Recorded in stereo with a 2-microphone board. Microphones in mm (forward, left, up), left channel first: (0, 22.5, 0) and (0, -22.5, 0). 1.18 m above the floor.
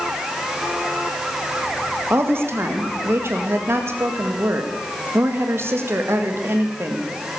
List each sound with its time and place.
2.1 s a woman speaking: 60° right (ahead or behind), 1.9 m